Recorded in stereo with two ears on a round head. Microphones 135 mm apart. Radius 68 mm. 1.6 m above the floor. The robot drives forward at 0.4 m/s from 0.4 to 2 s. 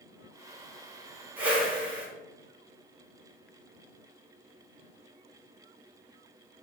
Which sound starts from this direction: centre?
A whoosh, at 1.4 s.